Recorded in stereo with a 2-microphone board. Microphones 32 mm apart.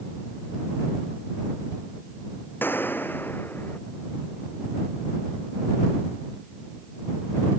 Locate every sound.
2.6 s a gunshot: 85° left